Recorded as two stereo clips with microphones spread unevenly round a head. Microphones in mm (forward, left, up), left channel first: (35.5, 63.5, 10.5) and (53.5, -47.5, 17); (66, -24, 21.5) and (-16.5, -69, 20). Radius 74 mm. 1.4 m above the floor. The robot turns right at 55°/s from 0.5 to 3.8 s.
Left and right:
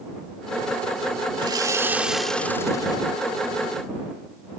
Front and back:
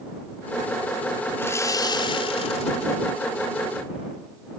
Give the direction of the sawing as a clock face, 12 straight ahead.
1 o'clock.